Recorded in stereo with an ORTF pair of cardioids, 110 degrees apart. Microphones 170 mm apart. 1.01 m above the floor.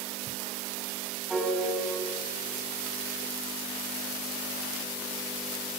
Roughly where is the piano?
Ahead.